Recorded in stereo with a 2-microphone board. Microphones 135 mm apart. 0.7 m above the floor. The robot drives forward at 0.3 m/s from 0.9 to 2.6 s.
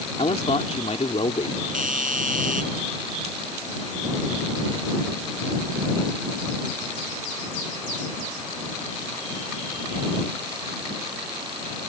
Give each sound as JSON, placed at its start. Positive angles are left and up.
{"t": 0.2, "sound": "a man speaking", "side_deg": 55}
{"t": 1.7, "sound": "a doorbell", "side_deg": -85}